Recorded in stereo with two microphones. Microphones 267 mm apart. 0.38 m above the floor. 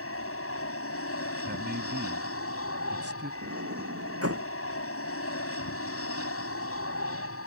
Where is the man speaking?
40° right (ahead or behind).